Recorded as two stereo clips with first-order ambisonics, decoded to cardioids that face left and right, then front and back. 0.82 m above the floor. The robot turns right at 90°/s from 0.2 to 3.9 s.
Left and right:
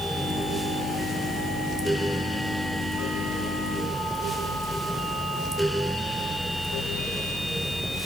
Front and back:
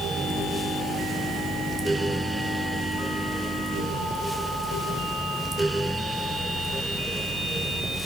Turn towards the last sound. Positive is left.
No sound to turn to.